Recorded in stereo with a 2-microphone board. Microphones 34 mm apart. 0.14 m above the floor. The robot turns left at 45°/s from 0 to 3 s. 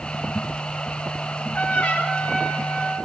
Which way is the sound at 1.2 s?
125° left.